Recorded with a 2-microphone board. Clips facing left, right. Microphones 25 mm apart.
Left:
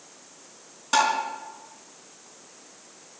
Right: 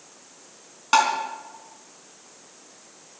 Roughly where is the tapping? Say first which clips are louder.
Right 2 dB; right.